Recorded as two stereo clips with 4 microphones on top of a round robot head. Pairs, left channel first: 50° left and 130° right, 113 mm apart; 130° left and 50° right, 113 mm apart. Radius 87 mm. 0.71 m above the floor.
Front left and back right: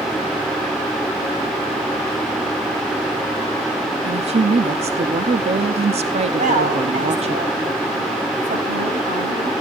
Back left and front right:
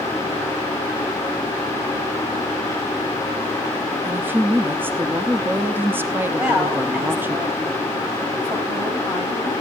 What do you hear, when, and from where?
4.0 s a woman speaking: 120° right, 0.9 m
6.4 s a woman speaking: 120° right, 6.5 m